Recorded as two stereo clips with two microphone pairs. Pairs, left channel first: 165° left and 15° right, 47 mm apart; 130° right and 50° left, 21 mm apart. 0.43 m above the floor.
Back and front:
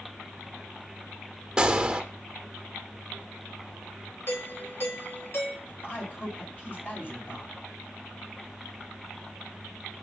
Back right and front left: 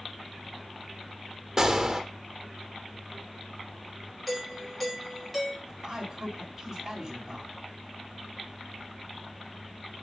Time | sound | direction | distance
1.6 | a gunshot | 45° left | 1.0 m
4.3 | a doorbell | 150° left | 3 m
5.7 | a man speaking | 120° left | 3.5 m